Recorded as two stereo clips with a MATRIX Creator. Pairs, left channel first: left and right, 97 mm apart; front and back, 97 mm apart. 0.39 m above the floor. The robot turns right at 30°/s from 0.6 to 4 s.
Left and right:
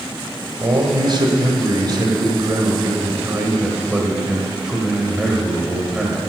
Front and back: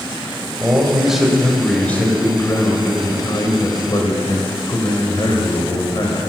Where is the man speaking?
110° right, 1.9 m; by 6.2 s 10° right, 1.9 m.